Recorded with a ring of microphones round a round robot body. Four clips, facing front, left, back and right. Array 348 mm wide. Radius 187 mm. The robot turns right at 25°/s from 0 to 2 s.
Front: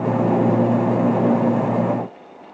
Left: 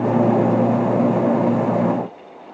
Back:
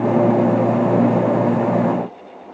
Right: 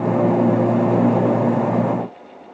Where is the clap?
I don't hear a clap.